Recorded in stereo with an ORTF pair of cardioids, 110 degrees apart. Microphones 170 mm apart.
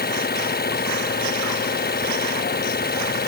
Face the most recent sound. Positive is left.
turn(degrees=60)